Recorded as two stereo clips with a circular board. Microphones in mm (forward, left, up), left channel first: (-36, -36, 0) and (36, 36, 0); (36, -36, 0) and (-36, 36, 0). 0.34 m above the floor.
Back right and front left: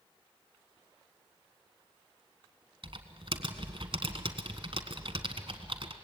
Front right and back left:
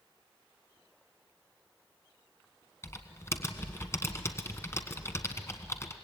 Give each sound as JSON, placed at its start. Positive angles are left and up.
{"t": 2.8, "sound": "typing on a keyboard", "azimuth_deg": 15, "distance_m": 1.4}